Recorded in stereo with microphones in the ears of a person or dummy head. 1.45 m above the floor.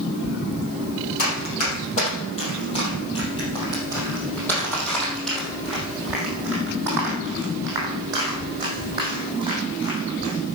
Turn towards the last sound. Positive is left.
turn(degrees=-25)  # may be behind; listen again after turning